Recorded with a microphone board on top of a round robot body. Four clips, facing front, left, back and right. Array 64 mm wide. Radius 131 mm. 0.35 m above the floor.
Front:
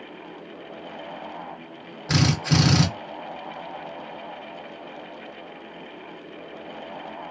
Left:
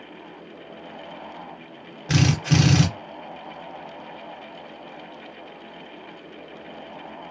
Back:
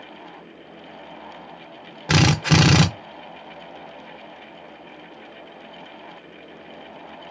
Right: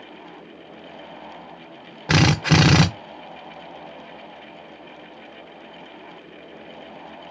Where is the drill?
115° right, 0.6 m.